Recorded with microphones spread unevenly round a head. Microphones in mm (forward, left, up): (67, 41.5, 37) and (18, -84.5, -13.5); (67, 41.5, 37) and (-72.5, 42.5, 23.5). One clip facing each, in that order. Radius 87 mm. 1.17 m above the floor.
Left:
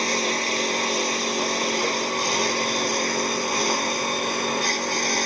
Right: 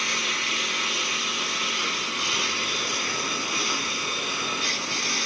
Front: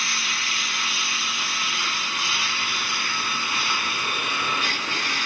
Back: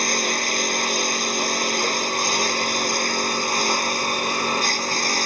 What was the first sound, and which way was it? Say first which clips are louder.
A lawn mower: left 8 dB, back 9 dB; 130° left.